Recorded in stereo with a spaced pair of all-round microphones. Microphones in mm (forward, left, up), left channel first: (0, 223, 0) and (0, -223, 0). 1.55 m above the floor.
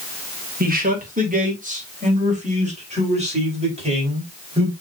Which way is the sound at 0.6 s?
20° right (ahead or behind).